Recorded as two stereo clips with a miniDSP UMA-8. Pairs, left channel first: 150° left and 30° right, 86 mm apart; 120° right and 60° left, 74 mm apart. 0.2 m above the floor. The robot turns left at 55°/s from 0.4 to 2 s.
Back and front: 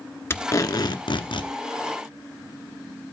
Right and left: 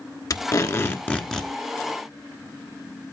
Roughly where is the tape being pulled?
Behind right.